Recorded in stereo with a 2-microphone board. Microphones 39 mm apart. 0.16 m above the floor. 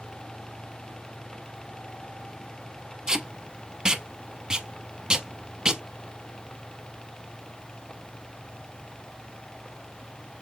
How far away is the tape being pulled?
About 0.5 m.